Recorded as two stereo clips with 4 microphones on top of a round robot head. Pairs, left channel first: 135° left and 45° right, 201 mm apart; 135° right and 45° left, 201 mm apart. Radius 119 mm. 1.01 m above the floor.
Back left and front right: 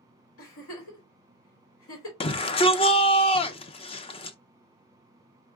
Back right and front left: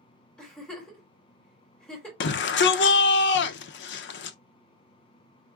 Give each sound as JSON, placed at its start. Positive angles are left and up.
{"t": 0.4, "sound": "a giggle", "azimuth_deg": 145, "distance_m": 2.5}
{"t": 2.2, "sound": "a shout", "azimuth_deg": -165, "distance_m": 0.5}